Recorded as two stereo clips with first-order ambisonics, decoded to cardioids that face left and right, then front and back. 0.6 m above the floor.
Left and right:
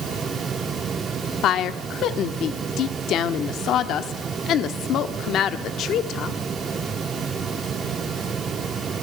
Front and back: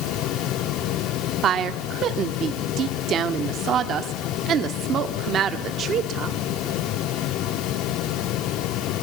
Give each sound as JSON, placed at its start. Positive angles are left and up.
{"t": 1.4, "sound": "a woman speaking", "azimuth_deg": 135, "distance_m": 1.1}